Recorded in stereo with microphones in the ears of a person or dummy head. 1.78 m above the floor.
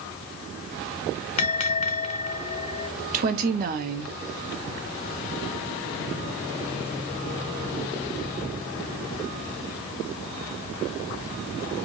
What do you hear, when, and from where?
1.4 s a bell: 40° left (ahead or behind), 0.6 m
3.1 s a woman speaking: 50° right (ahead or behind), 1.0 m